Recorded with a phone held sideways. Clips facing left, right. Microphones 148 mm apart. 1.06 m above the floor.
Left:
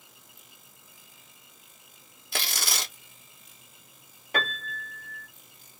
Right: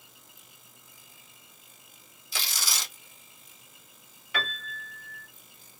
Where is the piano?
45° left (ahead or behind), 1.0 m.